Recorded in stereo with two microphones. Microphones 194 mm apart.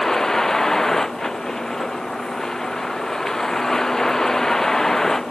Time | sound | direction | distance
0.0 | a vehicle | 5° left (ahead or behind) | ?